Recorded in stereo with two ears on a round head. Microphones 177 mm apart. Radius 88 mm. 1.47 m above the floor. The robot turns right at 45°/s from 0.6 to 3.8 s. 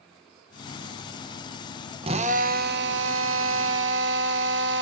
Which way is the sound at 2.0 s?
150° right.